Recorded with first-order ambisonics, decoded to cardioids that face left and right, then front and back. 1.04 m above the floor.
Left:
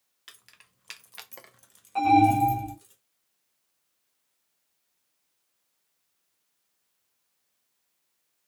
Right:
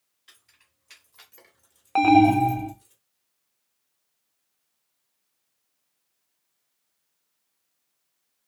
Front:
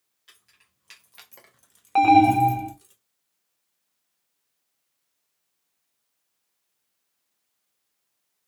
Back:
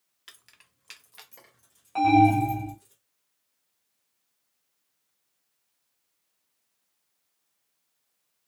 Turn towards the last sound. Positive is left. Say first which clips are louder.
# right 3 dB, front 4 dB
turn(degrees=-50)